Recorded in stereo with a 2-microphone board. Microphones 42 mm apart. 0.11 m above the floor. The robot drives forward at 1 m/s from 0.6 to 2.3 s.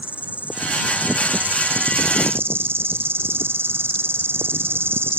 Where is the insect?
35° right (ahead or behind); by 5.2 s 70° right (ahead or behind).